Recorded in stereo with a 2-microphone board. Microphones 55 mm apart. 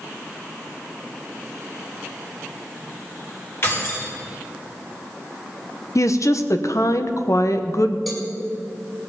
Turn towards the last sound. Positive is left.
turn(degrees=0)  # may be behind; listen again after turning